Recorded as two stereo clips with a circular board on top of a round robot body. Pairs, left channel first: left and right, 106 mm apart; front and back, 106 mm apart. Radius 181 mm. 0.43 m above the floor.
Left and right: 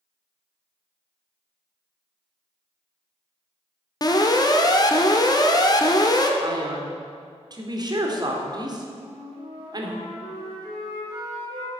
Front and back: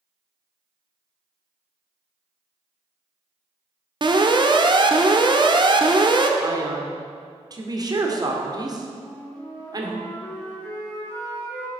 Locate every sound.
4.0 s an alarm: 140° left, 1.2 m
6.4 s a man speaking: 135° right, 2 m
9.0 s a flute: 70° right, 4.5 m